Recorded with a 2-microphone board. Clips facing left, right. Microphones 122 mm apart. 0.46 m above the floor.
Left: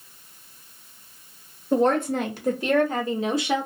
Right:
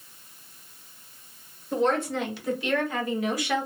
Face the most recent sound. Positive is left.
turn(degrees=15)  # may be behind; listen again after turning